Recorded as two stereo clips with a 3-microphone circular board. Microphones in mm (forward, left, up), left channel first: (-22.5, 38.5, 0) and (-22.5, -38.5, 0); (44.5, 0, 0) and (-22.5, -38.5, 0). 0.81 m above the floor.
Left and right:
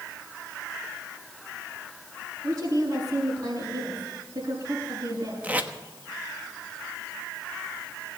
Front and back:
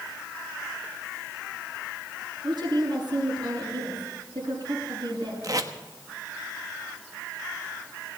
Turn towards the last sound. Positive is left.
turn(degrees=-155)